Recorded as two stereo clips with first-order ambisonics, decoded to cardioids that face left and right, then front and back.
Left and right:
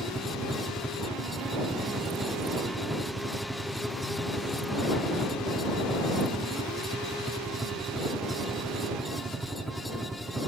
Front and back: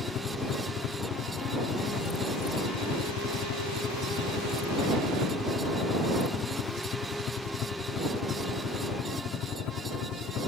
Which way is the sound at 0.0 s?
10° right.